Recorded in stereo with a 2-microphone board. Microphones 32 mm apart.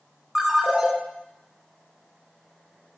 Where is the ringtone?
10° right (ahead or behind), 1.3 m.